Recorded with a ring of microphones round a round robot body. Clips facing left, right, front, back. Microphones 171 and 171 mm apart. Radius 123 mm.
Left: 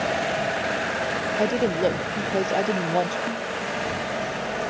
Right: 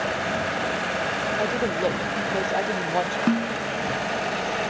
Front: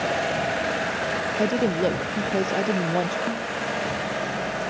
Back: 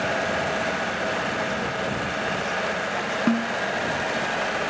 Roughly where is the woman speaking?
Ahead.